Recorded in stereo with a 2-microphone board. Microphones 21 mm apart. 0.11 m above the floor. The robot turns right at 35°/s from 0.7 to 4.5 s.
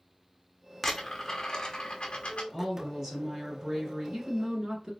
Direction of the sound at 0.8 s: 10° left (ahead or behind).